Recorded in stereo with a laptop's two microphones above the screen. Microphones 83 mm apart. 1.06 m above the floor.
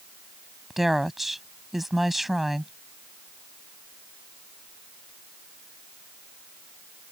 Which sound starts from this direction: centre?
A woman speaking, at 0.7 s.